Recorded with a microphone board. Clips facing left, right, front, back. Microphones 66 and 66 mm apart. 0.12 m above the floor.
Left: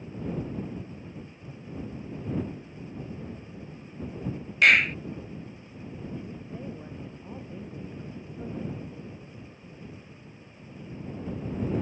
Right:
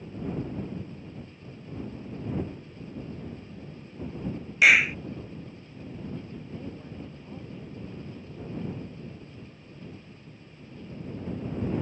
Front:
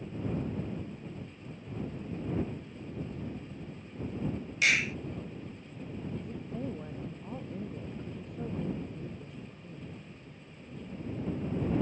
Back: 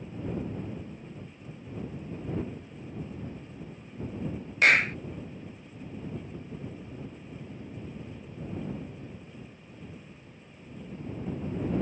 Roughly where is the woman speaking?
Ahead.